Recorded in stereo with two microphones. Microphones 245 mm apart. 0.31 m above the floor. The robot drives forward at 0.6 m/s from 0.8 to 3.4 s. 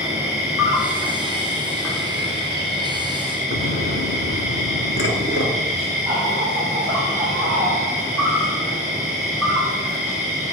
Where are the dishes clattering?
55° left (ahead or behind), 2.5 m.